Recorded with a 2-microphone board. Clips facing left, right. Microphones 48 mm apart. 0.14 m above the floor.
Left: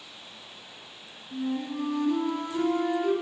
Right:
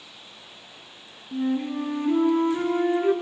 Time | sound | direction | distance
1.3 | a flute | 35° right (ahead or behind) | 1.3 m